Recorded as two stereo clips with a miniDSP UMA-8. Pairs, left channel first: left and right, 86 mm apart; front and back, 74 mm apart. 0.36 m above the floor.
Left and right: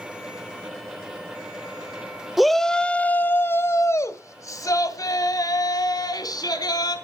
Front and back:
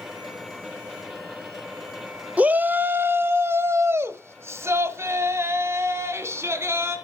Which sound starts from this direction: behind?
A shout, at 2.4 s.